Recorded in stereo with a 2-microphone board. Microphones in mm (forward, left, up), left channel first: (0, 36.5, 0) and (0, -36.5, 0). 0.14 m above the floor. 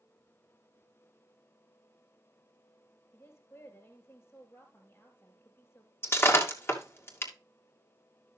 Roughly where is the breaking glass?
Left.